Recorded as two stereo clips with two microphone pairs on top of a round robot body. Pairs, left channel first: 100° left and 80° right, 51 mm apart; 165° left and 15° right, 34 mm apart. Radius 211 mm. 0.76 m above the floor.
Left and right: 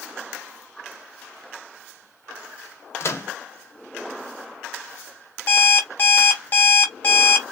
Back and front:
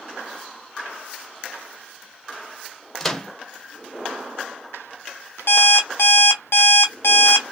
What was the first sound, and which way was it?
A microwave, 95° left.